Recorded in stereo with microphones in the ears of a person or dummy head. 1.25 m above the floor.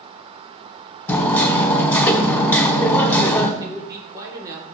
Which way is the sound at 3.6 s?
15° right (ahead or behind).